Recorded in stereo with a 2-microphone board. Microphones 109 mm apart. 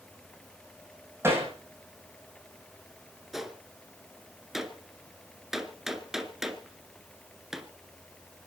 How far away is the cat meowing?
I don't hear a cat meowing.